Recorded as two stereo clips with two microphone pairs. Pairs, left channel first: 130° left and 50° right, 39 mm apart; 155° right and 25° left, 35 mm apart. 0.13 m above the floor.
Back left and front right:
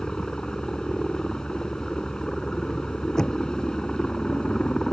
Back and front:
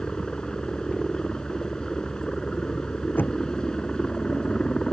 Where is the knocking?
160° right.